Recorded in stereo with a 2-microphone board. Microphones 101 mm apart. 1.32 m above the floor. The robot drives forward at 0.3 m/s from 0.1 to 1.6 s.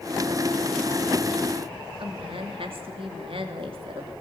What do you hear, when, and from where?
2.0 s a woman speaking: 65° right (ahead or behind), 2.5 m